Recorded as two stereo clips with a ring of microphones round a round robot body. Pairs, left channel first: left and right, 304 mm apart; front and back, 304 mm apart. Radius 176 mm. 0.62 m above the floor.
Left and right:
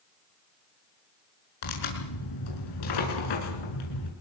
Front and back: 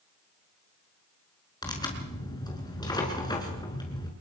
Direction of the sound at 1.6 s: 80° left.